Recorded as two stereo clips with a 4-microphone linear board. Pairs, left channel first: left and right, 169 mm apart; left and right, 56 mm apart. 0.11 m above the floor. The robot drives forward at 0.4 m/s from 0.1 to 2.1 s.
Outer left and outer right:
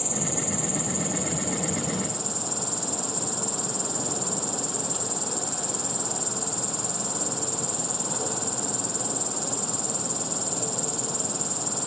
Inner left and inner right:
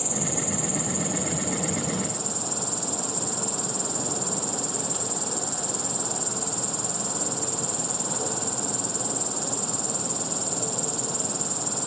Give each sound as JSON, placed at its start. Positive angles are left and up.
{"t": 0.0, "sound": "an insect", "side_deg": 0}